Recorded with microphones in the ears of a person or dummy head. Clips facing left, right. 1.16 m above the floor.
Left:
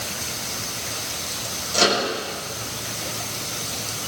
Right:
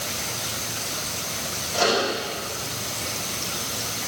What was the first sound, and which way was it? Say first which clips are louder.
A microwave: left 1 dB; 30° left (ahead or behind).